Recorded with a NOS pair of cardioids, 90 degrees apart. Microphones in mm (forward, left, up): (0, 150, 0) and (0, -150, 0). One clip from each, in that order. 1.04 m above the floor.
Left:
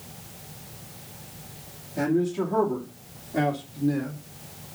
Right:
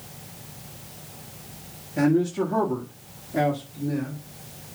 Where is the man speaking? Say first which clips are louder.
Right 3 dB; 20° right, 2.5 m; by 4.2 s 20° left, 2.0 m.